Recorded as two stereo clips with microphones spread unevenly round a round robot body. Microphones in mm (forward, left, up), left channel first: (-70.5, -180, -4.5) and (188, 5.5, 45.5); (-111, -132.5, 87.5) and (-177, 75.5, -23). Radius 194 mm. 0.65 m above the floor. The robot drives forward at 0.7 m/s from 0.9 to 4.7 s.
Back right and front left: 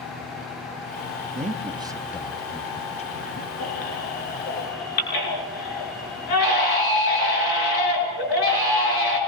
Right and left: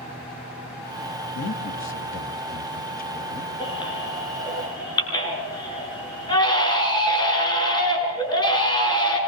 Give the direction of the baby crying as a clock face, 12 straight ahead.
5 o'clock.